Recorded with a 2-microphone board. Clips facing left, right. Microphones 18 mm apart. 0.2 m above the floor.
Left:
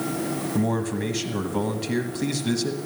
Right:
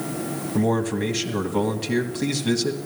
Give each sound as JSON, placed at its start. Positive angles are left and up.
{"t": 0.6, "sound": "a man speaking", "side_deg": -15, "distance_m": 1.2}